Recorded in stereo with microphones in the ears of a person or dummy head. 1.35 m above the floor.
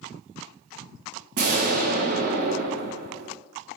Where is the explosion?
45° right (ahead or behind), 0.7 m.